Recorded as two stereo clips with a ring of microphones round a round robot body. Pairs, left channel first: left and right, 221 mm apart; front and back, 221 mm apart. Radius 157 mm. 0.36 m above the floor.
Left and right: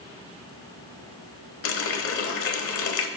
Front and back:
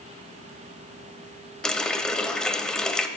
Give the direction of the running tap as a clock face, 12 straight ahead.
9 o'clock.